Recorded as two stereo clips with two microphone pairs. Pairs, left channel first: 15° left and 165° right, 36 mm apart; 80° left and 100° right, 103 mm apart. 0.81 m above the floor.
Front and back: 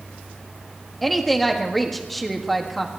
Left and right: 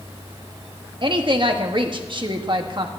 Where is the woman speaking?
75° right, 1.4 m.